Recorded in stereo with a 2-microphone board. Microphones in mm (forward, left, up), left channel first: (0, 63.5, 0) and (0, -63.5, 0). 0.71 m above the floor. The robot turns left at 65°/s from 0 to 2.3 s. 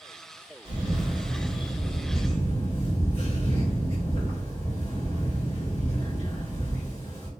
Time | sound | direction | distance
0.7 | a camera shutter | 140° right | 1.7 m